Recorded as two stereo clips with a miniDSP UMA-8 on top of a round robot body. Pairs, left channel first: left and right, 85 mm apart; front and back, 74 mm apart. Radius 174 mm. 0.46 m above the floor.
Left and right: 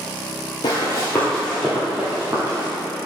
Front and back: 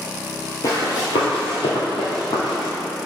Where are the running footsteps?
50° left, 0.7 m; by 2.7 s 25° right, 1.2 m.